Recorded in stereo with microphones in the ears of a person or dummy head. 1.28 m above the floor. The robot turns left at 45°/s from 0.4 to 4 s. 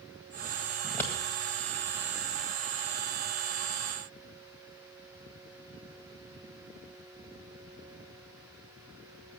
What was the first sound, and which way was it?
Scissors, 5° left (ahead or behind).